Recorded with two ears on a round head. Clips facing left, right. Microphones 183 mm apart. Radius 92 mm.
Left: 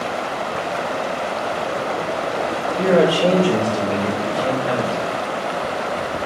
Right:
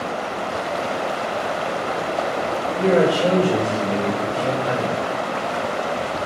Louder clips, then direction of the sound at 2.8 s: Left 2 dB; 15° left (ahead or behind).